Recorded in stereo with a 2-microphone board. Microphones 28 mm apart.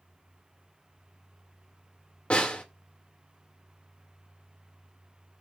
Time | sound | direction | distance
2.3 | a snare drum | 40° left (ahead or behind) | 1.7 m